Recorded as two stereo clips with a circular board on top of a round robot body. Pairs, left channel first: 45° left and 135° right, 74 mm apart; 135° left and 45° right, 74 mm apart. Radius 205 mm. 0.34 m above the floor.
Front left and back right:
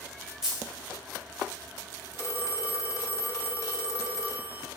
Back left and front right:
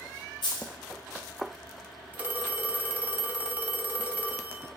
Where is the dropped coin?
140° left, 0.6 m.